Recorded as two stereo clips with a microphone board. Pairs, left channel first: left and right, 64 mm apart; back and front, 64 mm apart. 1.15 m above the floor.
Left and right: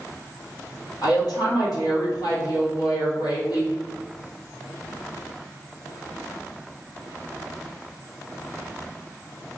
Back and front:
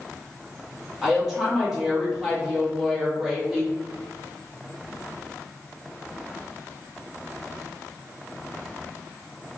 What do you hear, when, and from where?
1.0 s a woman speaking: 80° left, 1.7 m